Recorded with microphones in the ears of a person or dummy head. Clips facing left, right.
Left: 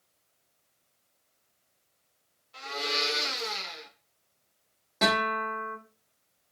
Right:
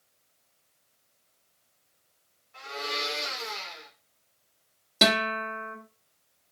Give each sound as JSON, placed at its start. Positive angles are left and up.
{"t": 2.5, "sound": "a blender", "side_deg": 50, "distance_m": 1.2}
{"t": 5.0, "sound": "a guitar", "side_deg": -40, "distance_m": 0.9}